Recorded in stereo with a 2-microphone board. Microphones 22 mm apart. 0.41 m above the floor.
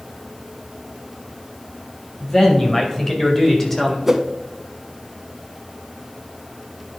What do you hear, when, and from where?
2.2 s a man speaking: 25° left (ahead or behind), 2.5 m; by 4.0 s 15° left (ahead or behind), 1.8 m
4.1 s a whoosh: 15° right (ahead or behind), 0.6 m